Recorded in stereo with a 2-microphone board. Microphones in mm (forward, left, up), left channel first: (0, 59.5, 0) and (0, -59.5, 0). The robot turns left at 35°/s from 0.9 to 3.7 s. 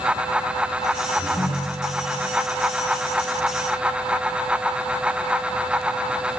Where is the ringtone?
115° left, 3 m; by 2.2 s 80° left, 3 m.